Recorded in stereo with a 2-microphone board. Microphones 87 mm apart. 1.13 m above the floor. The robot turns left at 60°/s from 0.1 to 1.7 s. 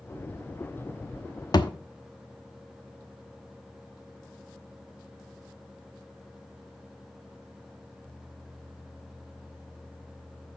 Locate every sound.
1.5 s a thud: 50° left (ahead or behind), 0.9 m; by 1.7 s 55° left (ahead or behind), 0.9 m